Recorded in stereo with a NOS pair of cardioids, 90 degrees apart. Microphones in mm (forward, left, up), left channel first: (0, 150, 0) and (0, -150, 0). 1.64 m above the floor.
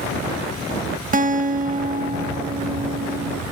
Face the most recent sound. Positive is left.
turn(degrees=-30)